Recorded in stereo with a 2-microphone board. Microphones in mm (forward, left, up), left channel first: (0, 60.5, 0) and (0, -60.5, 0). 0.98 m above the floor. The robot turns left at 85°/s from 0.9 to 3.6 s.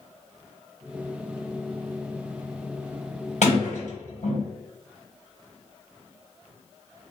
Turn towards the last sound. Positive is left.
turn(degrees=80)